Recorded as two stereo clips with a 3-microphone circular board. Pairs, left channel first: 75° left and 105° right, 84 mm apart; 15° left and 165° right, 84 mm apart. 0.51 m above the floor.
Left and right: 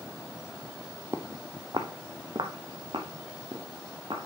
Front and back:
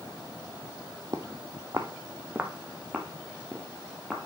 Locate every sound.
1.1 s footsteps: 150° right, 0.7 m; by 4.3 s 80° right, 2 m